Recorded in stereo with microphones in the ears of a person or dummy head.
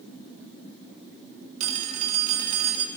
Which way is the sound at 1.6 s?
45° right (ahead or behind).